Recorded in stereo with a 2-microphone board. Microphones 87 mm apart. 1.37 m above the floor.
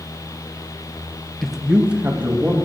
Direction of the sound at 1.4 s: 5° left (ahead or behind).